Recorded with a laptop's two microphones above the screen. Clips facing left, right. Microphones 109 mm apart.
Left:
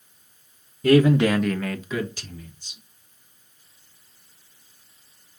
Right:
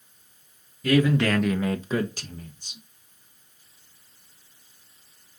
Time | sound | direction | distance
0.8 | a man speaking | 45° left (ahead or behind) | 0.8 m